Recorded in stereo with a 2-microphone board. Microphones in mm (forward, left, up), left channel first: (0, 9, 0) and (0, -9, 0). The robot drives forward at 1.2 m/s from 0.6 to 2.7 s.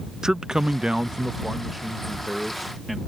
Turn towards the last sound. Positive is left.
turn(degrees=-10)  # may be behind; listen again after turning